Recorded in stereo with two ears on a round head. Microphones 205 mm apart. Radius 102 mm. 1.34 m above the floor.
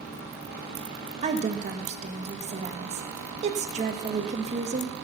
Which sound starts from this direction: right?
A woman speaking, at 1.2 s.